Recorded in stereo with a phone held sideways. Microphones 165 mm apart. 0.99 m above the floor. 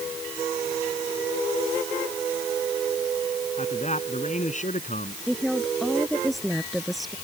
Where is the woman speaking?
Centre (ahead or behind).